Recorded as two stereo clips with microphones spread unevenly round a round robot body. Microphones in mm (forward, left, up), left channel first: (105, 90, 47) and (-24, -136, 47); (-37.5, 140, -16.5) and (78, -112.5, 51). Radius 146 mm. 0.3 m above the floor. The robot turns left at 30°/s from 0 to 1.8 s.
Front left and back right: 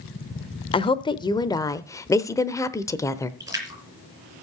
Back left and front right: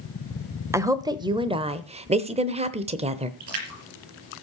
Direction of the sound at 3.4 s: 40° right.